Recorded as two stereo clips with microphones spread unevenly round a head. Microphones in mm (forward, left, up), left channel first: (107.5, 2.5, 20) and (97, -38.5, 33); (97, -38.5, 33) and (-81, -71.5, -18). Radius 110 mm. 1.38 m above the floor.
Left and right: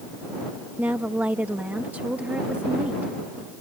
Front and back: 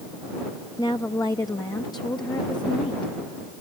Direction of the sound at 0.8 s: 60° right.